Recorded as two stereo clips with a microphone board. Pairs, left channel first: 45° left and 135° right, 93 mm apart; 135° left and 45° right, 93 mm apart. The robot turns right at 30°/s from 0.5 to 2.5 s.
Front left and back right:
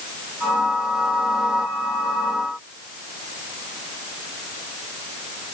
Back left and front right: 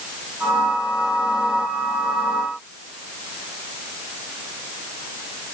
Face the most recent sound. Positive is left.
No sound to turn to.